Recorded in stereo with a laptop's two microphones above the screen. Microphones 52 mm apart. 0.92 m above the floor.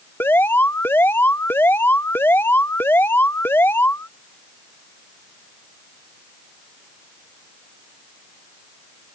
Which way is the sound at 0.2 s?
45° left (ahead or behind).